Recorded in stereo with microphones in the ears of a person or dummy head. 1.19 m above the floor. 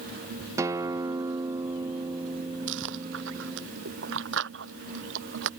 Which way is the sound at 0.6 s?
15° right (ahead or behind).